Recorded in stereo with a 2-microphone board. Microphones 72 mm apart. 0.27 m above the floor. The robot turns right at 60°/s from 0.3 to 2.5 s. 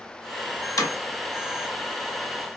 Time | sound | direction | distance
0.8 | hammering | 65° left (ahead or behind) | 0.9 m